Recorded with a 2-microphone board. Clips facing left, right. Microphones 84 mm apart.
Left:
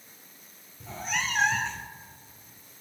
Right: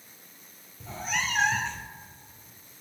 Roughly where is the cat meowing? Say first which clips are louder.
Right 1 dB; centre.